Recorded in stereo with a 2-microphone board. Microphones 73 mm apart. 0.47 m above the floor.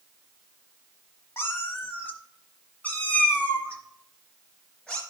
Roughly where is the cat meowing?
Left.